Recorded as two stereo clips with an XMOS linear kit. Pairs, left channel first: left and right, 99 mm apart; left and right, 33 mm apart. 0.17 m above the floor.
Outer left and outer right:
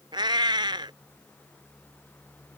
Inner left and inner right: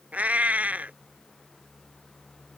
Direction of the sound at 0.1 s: 50° right (ahead or behind).